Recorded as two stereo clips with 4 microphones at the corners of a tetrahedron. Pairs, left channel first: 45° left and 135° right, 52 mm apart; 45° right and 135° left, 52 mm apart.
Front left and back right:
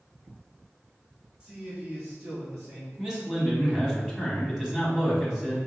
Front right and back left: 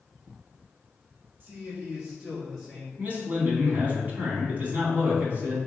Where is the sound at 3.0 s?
155° left, 1.3 m.